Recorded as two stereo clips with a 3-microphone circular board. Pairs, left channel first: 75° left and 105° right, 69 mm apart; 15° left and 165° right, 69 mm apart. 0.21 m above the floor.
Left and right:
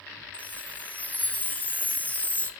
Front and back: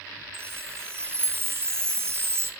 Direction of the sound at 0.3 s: 140° left.